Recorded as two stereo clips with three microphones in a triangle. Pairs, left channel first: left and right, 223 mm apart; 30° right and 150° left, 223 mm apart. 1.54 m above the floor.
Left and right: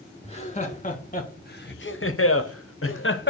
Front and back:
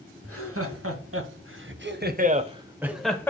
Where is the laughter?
150° left, 2 m; by 3.3 s 50° left, 1.1 m.